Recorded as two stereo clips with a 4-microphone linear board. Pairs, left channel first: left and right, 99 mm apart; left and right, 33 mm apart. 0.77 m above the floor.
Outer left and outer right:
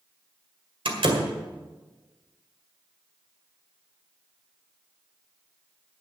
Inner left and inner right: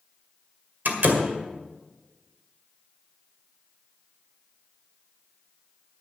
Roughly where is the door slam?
Right.